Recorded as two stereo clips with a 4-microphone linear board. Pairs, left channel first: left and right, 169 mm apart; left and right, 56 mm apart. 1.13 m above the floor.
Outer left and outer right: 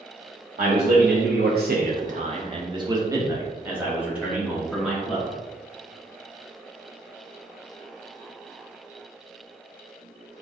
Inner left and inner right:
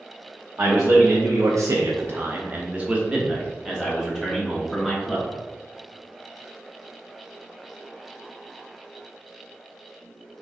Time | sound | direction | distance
0.6 | a man speaking | 60° right (ahead or behind) | 0.9 m